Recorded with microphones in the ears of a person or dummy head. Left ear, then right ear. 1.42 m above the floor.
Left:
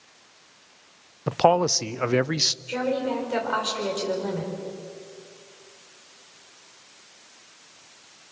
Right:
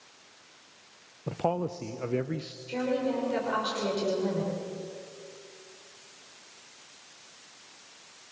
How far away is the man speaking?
About 0.6 m.